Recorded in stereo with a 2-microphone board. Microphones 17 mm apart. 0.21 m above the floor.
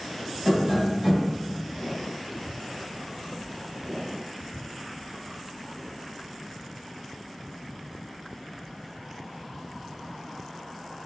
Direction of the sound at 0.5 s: 15° right (ahead or behind).